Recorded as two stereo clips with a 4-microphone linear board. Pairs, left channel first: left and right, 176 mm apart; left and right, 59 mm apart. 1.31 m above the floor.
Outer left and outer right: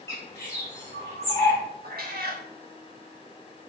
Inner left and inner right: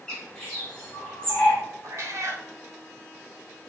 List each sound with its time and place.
0.1 s a bird: 15° left (ahead or behind), 2.5 m
1.8 s a cat meowing: 60° right (ahead or behind), 1.1 m